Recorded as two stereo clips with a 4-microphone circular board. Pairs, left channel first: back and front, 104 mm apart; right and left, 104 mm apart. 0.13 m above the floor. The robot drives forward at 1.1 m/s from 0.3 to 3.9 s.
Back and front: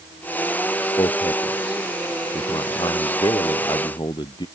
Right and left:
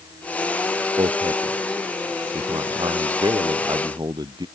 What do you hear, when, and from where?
1.0 s a man speaking: 130° left; by 4.5 s 140° left